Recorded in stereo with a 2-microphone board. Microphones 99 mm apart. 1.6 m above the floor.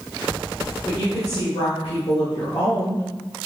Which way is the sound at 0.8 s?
70° left (ahead or behind).